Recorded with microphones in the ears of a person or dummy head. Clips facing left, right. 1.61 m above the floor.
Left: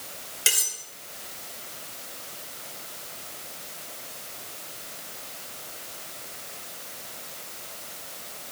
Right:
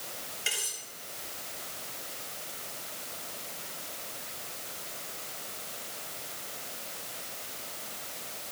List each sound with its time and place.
0.5 s cutlery clinking: 80° left, 5.5 m